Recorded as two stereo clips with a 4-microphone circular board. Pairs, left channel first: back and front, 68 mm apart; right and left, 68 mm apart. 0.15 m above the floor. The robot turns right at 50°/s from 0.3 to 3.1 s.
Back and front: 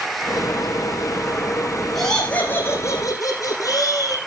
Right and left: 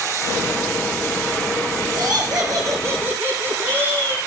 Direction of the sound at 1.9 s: 90° left.